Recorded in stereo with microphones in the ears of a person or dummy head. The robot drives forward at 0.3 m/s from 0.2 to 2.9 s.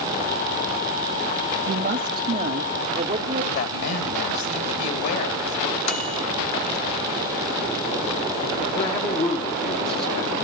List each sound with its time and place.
1.7 s a woman speaking: 40° right (ahead or behind), 0.7 m; by 3.4 s 30° right (ahead or behind), 0.9 m
3.5 s a man speaking: 80° left, 3.5 m
5.9 s a microwave: 40° left (ahead or behind), 0.9 m
8.8 s a man speaking: 35° left (ahead or behind), 2.5 m